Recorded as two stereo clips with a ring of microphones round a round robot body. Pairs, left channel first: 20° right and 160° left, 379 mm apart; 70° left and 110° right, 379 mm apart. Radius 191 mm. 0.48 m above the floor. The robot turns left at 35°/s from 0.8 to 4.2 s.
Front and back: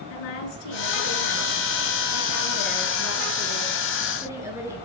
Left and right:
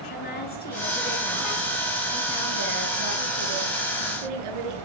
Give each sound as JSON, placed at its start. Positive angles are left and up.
{"t": 0.1, "sound": "a woman speaking", "azimuth_deg": 0, "distance_m": 8.0}